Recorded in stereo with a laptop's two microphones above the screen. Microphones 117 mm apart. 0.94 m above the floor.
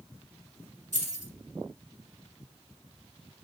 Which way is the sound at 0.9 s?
85° right.